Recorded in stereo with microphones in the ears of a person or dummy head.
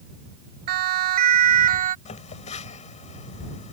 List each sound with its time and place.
0.7 s a siren: 45° right (ahead or behind); by 1.9 s 35° right (ahead or behind)
2.0 s a phone buzzing: 40° left (ahead or behind)